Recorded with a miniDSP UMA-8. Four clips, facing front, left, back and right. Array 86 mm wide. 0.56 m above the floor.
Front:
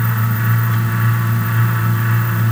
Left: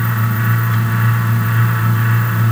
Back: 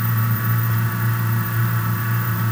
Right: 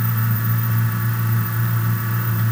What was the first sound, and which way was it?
Only background noise.